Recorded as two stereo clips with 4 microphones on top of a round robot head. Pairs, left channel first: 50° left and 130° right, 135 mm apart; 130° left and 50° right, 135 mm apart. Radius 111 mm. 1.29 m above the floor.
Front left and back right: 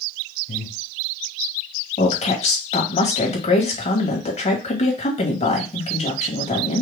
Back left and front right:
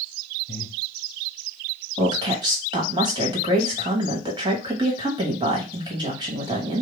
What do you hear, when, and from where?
0.5 s breathing: 60° left, 1.7 m
2.0 s a woman speaking: 10° left, 2 m